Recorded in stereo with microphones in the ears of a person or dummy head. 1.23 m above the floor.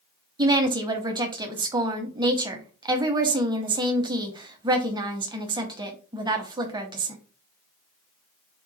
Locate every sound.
0.4 s a woman speaking: 15° right (ahead or behind), 0.6 m